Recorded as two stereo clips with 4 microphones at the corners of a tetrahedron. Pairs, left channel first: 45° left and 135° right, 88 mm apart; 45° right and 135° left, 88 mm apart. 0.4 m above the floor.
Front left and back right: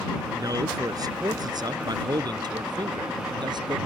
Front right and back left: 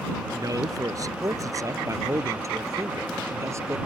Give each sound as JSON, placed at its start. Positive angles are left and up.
{"t": 0.3, "sound": "a man speaking", "azimuth_deg": 180}